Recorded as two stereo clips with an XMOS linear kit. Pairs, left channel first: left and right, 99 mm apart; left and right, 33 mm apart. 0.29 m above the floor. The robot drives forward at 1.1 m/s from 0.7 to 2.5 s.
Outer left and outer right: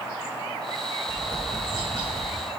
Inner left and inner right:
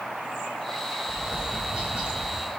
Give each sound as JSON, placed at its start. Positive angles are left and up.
{"t": 1.1, "sound": "tapping", "side_deg": -45, "distance_m": 1.5}